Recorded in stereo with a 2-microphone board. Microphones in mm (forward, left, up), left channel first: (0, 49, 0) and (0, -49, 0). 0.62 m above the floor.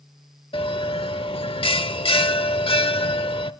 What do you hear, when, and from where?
0.5 s a bell: 65° left (ahead or behind), 0.9 m